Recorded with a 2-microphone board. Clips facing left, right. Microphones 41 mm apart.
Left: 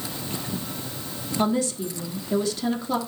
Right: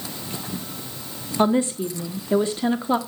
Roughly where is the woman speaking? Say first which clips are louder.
Right 4 dB; right.